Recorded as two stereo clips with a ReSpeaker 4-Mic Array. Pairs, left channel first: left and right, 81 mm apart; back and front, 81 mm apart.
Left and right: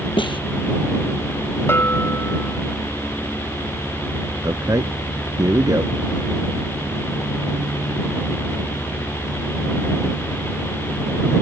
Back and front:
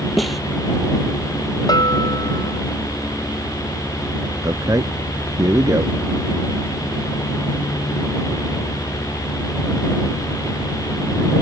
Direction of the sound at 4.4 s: 45° right.